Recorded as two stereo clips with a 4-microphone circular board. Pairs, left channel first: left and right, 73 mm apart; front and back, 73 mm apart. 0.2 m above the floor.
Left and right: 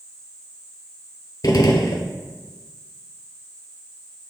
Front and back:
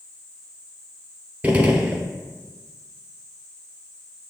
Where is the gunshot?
110° left, 0.6 m.